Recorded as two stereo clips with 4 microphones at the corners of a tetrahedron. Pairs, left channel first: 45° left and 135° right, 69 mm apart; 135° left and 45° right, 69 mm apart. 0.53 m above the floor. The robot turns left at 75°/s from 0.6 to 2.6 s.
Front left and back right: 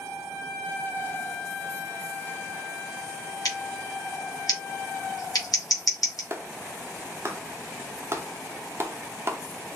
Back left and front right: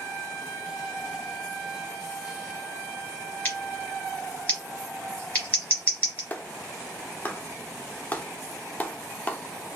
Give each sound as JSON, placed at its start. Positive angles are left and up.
{"t": 3.5, "sound": "scissors", "azimuth_deg": 70, "distance_m": 2.5}
{"t": 6.3, "sound": "a clap", "azimuth_deg": -170, "distance_m": 0.6}